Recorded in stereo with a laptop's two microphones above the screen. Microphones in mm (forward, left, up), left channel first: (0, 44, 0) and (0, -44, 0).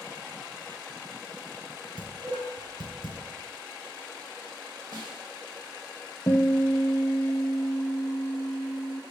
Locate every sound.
2.0 s dishes clattering: 80° right, 3.5 m
4.9 s a snare drum: 65° right (ahead or behind), 3 m
6.3 s a guitar: 60° left (ahead or behind), 1.0 m